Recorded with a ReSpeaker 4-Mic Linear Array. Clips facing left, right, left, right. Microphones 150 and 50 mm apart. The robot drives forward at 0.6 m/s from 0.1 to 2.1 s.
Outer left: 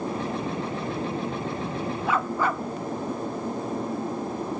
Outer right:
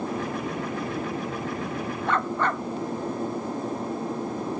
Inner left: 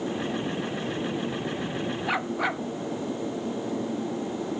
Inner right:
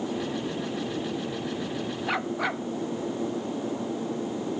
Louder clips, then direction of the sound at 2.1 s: Even, even; 5° left (ahead or behind).